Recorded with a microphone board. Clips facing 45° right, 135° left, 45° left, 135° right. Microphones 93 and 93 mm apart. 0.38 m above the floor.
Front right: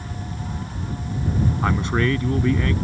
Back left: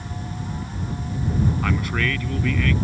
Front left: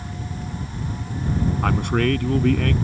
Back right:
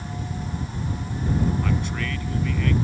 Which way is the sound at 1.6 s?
20° left.